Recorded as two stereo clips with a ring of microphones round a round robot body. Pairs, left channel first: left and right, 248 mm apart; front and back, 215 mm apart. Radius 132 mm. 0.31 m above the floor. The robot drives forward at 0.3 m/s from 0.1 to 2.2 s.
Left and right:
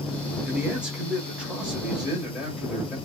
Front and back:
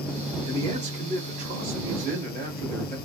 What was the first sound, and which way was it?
A man speaking, 170° right.